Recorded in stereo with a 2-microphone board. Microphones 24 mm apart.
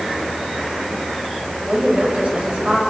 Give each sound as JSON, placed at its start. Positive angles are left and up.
{"t": 1.7, "sound": "a woman speaking", "side_deg": -45, "distance_m": 6.5}